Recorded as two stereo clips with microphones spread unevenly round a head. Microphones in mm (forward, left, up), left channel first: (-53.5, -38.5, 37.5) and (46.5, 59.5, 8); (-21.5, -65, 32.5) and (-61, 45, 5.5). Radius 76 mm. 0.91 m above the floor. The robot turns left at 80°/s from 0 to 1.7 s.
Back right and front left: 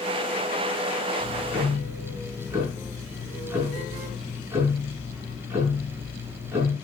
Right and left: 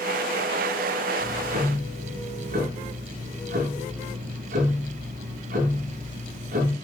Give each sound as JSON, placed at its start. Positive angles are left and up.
{"t": 1.2, "sound": "ticking", "azimuth_deg": 160, "distance_m": 6.5}